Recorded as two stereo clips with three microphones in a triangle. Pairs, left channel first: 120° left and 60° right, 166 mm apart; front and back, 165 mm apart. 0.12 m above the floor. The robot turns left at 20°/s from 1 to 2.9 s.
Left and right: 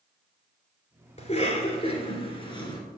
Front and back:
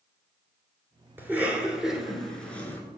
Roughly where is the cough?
Left.